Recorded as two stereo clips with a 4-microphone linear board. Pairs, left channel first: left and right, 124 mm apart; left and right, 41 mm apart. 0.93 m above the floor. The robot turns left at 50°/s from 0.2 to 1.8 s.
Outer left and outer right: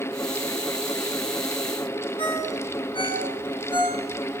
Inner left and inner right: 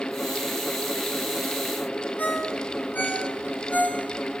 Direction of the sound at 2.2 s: 45° left (ahead or behind).